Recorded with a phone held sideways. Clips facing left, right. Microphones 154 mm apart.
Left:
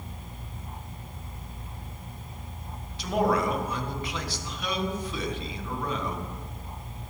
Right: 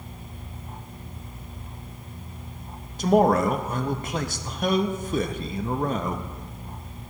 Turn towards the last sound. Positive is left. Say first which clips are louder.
# right 6 dB
turn(degrees=-45)  # may be behind; listen again after turning